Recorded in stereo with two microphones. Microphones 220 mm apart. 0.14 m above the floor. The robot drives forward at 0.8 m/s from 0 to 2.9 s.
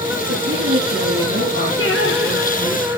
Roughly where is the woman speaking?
Right.